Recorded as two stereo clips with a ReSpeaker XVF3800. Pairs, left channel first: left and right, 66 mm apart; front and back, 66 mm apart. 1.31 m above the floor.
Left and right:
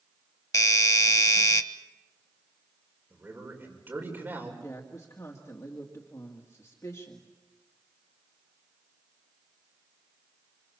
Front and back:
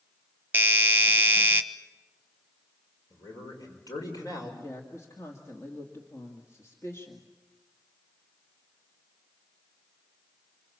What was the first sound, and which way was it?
A doorbell, 120° left.